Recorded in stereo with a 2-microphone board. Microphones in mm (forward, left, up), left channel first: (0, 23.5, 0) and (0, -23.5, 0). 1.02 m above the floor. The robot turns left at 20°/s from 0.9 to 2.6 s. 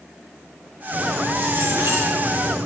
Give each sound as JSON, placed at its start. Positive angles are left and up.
{"t": 0.9, "sound": "keys jangling", "azimuth_deg": -45, "distance_m": 2.5}